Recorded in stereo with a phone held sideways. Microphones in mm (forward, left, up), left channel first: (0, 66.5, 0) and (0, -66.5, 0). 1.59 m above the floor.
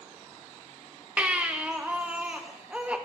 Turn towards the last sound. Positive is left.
turn(degrees=-10)  # may be behind; listen again after turning